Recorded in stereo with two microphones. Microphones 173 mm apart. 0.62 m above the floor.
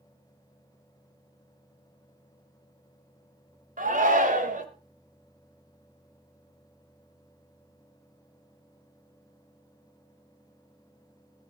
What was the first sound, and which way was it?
A shout, 50° right (ahead or behind).